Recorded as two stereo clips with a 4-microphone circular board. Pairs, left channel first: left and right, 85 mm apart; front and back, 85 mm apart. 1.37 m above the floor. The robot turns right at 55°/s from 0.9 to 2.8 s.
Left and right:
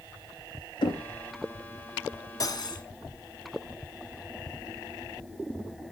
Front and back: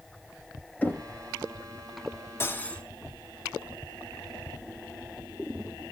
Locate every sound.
0.8 s knocking: 70° left, 1.3 m; by 1.0 s 80° left, 1.3 m
2.4 s cutlery clinking: 55° left, 0.8 m; by 2.8 s 80° left, 0.8 m